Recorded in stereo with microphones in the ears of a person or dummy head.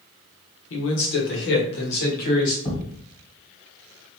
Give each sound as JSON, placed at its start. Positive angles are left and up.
{"t": 0.7, "sound": "a man speaking", "side_deg": 80, "distance_m": 1.1}
{"t": 2.6, "sound": "a thud", "side_deg": 35, "distance_m": 1.5}